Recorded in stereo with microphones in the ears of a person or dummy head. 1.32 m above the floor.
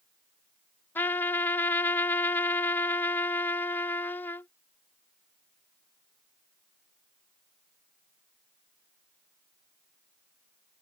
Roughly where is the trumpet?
Centre.